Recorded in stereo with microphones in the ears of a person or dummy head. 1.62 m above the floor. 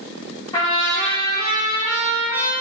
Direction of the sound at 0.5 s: 20° left (ahead or behind).